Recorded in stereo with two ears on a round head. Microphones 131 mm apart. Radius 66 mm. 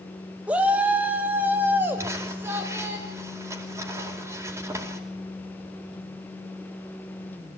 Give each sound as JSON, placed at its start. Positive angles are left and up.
{"t": 0.5, "sound": "a shout", "side_deg": -10, "distance_m": 1.2}
{"t": 2.0, "sound": "crumpling", "side_deg": -20, "distance_m": 4.5}